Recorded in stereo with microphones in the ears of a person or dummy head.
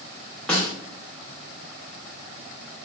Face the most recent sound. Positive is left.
turn(degrees=5)  # may be behind; listen again after turning